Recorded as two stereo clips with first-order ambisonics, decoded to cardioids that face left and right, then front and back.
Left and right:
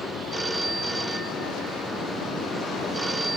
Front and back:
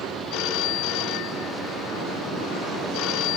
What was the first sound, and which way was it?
A phone ringing, 10° right.